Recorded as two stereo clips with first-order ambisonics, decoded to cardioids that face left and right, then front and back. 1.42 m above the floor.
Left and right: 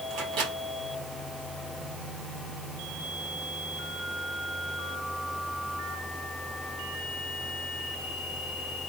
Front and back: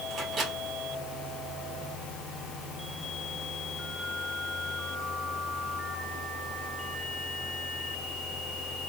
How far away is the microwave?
About 2.5 m.